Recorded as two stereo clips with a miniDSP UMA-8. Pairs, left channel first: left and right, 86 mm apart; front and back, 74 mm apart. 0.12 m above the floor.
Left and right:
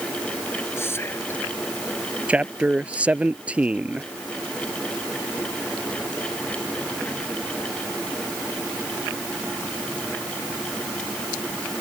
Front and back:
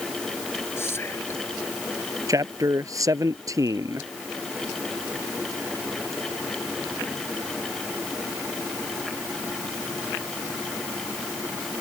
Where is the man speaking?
160° right.